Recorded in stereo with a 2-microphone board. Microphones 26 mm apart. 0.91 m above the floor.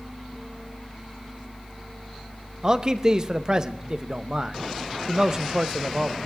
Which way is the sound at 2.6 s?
30° right (ahead or behind).